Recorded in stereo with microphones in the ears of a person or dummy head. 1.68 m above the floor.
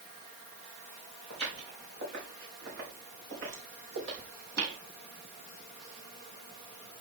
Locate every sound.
1.3 s footsteps: 65° right (ahead or behind), 7 m